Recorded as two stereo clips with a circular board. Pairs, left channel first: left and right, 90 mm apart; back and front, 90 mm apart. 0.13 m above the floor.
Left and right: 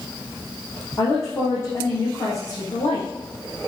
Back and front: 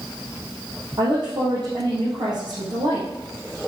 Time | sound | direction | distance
1.0 | a woman speaking | 30° left | 4 m